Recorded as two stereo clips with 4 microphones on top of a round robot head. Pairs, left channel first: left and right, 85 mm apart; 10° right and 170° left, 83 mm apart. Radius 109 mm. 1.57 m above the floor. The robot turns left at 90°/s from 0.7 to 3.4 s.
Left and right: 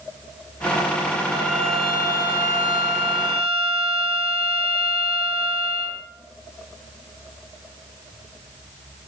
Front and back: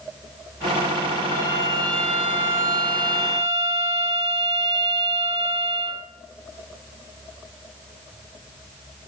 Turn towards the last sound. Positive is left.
turn(degrees=145)